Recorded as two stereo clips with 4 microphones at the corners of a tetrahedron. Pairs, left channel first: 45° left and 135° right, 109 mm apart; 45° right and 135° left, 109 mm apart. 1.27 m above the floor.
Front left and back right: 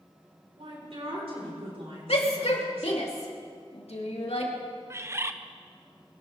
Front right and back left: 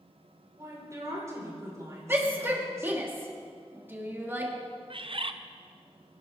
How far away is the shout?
About 2.5 m.